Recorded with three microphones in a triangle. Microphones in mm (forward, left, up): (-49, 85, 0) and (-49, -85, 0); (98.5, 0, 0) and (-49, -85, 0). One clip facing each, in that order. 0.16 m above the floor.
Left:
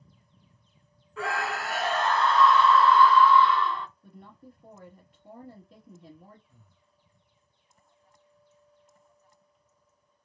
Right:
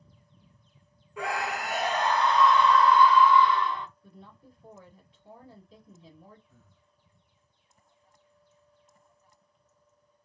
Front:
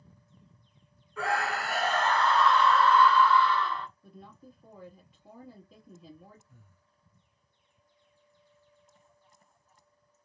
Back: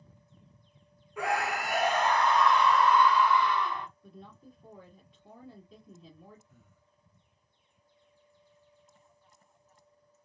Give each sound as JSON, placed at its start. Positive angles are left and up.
{"t": 1.2, "sound": "a scream", "azimuth_deg": -120, "distance_m": 1.1}
{"t": 4.0, "sound": "a woman speaking", "azimuth_deg": 115, "distance_m": 1.9}
{"t": 6.5, "sound": "breathing", "azimuth_deg": 20, "distance_m": 1.1}